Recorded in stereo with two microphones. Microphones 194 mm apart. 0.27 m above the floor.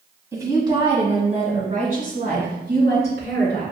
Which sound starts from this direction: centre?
A woman speaking, at 0.3 s.